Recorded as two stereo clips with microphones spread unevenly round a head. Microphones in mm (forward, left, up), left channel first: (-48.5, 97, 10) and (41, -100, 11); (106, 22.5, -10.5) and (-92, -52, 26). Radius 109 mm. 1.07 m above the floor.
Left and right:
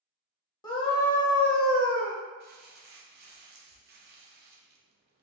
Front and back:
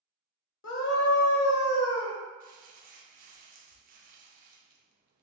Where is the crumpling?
110° right, 0.6 m.